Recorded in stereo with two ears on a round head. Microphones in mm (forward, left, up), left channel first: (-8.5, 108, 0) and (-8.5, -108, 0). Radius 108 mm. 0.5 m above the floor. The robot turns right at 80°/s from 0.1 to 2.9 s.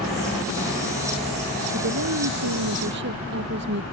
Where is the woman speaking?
140° right; by 3.8 s 45° right.